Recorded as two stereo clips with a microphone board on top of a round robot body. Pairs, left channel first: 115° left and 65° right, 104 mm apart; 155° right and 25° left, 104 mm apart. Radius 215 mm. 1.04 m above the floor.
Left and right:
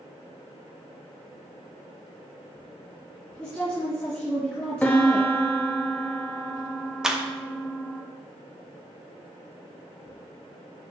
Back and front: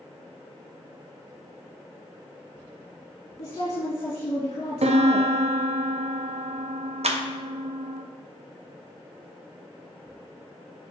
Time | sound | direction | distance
3.4 | a woman speaking | 170° right | 3 m
4.8 | a piano | 40° left | 0.7 m
7.0 | a clap | 20° left | 0.9 m